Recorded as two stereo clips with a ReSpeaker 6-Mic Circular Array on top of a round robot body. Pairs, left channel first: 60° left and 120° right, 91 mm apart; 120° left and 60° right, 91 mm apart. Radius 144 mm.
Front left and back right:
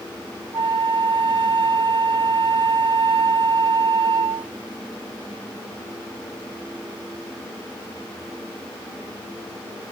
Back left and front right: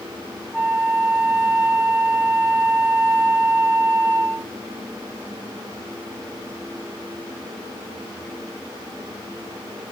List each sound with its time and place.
0.5 s a flute: 145° right, 0.9 m